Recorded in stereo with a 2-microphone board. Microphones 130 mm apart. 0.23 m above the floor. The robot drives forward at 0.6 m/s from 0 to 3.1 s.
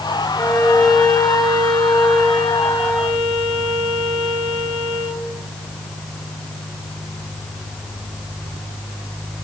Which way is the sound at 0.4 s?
15° left (ahead or behind).